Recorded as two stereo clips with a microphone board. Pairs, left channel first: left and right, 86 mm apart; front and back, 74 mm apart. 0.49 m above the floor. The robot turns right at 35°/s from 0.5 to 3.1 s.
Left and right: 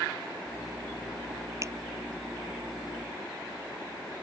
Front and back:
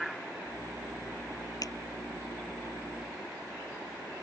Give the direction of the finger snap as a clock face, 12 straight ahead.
1 o'clock.